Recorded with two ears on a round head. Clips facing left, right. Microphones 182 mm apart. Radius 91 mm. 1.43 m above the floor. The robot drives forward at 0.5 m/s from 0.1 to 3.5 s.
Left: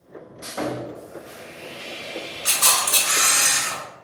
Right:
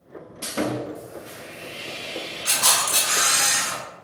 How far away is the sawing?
About 0.6 m.